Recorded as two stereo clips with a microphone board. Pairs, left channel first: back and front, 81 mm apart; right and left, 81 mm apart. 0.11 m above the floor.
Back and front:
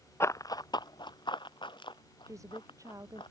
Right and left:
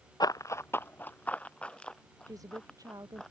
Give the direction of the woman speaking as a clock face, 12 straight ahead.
10 o'clock.